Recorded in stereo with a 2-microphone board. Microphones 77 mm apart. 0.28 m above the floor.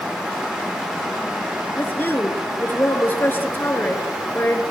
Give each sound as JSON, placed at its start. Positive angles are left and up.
{"t": 1.8, "sound": "a woman speaking", "side_deg": 25, "distance_m": 4.0}